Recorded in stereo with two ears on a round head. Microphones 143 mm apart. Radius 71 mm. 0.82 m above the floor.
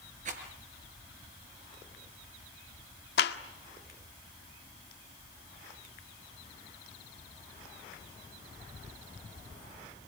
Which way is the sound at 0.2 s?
50° right (ahead or behind).